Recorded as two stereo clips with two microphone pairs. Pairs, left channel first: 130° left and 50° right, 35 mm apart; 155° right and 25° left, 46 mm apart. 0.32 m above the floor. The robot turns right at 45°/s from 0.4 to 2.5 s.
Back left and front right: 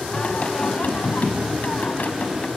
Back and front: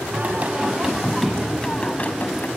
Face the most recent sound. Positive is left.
turn(degrees=175)